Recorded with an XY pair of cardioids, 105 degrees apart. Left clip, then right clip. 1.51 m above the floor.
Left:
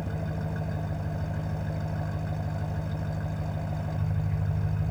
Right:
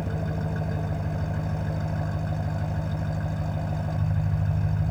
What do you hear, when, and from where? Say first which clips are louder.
0.0 s an engine running: right 3 dB; 20° right